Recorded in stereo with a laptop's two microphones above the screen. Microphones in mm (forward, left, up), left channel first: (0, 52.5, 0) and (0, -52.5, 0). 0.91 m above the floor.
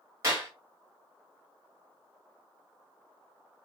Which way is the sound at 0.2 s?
30° right (ahead or behind).